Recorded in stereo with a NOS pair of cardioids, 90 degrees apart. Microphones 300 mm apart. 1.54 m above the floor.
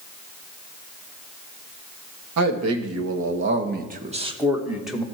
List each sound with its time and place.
2.4 s a man speaking: 65° right, 1.9 m; by 5.0 s 5° left, 1.7 m